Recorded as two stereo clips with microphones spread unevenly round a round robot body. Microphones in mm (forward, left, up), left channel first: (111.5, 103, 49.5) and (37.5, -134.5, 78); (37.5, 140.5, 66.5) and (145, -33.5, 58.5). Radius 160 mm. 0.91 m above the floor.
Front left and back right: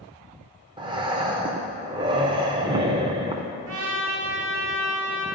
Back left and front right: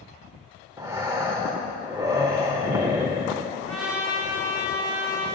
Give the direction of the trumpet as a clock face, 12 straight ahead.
3 o'clock.